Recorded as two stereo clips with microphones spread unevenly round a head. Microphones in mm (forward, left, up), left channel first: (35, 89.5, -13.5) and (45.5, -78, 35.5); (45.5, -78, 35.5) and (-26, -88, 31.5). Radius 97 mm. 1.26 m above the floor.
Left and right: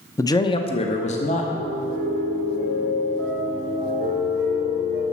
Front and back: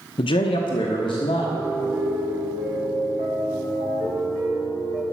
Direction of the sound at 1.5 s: 150° right.